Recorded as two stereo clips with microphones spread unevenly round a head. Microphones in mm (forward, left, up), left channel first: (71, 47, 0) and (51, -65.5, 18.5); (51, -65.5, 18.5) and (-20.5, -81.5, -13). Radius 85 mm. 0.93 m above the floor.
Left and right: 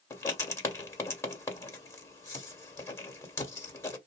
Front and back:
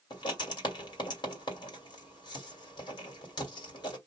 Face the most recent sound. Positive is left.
turn(degrees=10)